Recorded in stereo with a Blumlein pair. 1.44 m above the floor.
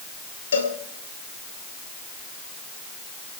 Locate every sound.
0.5 s a cowbell: 65° left, 2.5 m